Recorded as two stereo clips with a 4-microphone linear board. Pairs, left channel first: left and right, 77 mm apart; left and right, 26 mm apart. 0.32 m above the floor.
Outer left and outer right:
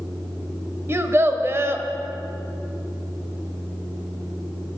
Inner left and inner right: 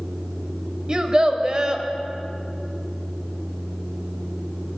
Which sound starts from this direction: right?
A child speaking, at 0.9 s.